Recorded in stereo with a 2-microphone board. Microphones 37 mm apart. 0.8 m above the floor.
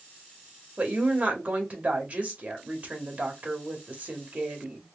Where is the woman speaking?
35° right (ahead or behind), 1.6 m.